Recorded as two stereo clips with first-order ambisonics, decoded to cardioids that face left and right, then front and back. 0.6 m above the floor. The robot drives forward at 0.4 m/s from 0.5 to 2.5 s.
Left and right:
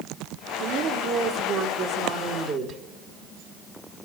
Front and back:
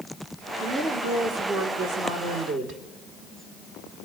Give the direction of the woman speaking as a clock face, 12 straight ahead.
4 o'clock.